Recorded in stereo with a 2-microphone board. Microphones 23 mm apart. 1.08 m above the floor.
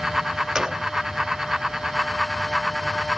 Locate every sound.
0.6 s a gunshot: 25° right (ahead or behind)